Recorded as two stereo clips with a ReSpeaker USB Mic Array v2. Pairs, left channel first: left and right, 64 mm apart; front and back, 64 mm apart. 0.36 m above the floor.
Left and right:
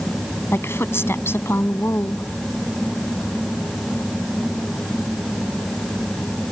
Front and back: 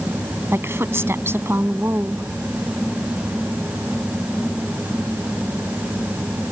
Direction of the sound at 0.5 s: 135° left.